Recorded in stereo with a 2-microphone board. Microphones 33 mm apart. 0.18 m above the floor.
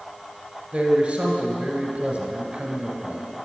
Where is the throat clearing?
I don't hear throat clearing.